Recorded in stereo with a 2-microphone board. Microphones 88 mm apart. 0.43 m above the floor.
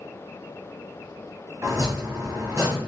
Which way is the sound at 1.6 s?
35° right (ahead or behind).